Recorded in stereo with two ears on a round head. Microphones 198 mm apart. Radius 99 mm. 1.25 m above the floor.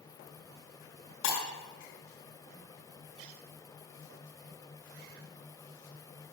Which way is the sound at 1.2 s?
60° left (ahead or behind).